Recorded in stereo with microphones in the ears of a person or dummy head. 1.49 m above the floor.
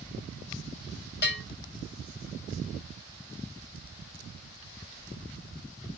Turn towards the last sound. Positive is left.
turn(degrees=45)  # may be behind; listen again after turning